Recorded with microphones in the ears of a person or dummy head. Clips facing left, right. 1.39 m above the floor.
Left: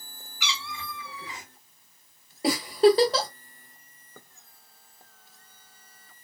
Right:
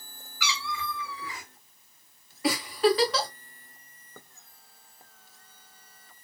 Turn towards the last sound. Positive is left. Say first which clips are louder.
# left 5 dB
turn(degrees=25)  # may be behind; listen again after turning